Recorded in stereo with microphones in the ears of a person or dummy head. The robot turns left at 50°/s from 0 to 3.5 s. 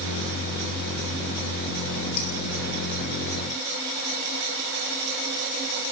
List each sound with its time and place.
2.2 s dishes clattering: 55° left (ahead or behind), 5 m; by 2.3 s 50° left (ahead or behind), 5 m